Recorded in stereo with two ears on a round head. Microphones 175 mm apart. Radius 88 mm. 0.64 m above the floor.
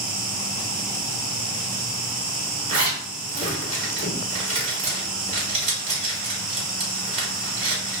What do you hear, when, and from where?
0.0 s an insect: 45° right (ahead or behind), 0.9 m
2.7 s a zipper: 35° right (ahead or behind), 1.3 m